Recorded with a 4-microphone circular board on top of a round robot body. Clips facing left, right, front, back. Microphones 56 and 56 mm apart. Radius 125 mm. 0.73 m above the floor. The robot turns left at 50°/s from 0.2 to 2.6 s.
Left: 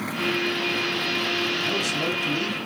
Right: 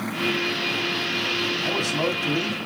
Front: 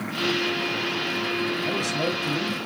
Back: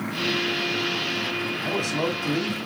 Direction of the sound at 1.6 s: 125° right.